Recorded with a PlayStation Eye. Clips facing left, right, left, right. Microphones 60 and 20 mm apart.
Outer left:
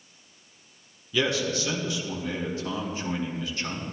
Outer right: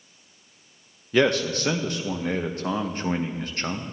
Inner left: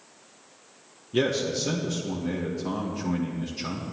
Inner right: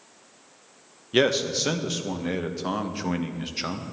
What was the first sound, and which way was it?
A man speaking, 50° right (ahead or behind).